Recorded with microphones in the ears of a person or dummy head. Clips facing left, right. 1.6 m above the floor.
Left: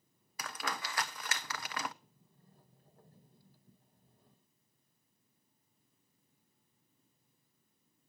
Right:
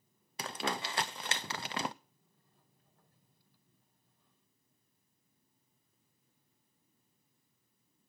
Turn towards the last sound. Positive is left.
turn(degrees=35)  # may be behind; listen again after turning